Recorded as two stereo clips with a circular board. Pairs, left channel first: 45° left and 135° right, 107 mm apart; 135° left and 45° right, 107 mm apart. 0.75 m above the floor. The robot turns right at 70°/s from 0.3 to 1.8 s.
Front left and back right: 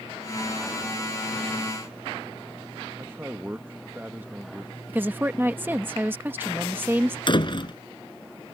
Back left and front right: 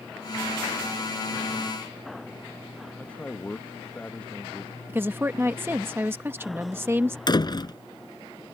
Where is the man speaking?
170° right.